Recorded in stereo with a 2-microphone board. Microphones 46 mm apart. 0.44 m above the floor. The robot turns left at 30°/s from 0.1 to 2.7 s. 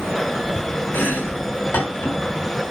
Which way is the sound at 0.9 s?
40° left (ahead or behind).